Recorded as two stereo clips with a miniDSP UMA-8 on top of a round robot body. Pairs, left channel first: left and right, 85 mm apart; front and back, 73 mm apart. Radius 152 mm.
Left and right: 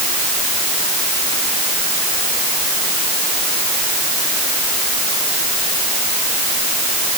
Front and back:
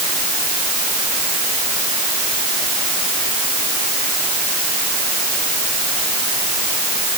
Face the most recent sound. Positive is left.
No sound to turn to.